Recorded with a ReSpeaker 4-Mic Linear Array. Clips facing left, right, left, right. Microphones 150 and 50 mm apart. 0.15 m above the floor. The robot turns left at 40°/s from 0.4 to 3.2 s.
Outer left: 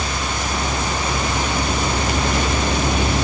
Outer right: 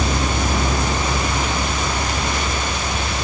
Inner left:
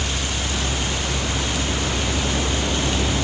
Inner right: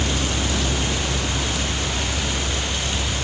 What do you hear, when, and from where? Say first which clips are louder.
0.0 s a vehicle: outer right 4 dB, inner right 2 dB; 145° right; by 3.2 s 100° left